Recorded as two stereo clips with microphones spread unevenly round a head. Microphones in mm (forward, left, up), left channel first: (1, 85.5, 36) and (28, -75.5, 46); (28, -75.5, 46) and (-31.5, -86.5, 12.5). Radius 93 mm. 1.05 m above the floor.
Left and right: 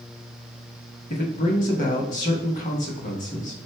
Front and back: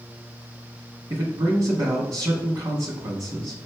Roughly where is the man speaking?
Behind left.